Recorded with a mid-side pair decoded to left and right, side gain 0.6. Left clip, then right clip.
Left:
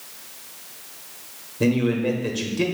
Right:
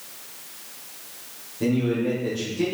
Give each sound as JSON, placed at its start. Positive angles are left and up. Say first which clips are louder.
{"t": 1.6, "sound": "a man speaking", "louder": "left 2 dB", "azimuth_deg": 45, "distance_m": 1.1}